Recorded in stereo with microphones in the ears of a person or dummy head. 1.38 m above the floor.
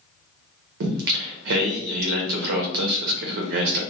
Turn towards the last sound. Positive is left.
turn(degrees=-55)  # may be behind; listen again after turning